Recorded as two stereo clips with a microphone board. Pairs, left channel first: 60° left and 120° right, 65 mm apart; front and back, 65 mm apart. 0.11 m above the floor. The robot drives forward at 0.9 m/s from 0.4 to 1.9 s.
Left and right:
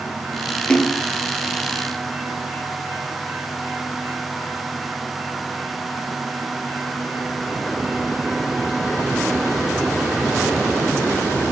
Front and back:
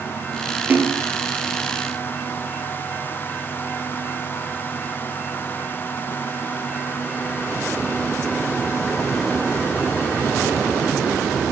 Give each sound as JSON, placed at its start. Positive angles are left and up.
{"t": 0.7, "sound": "a splash", "azimuth_deg": 130, "distance_m": 1.9}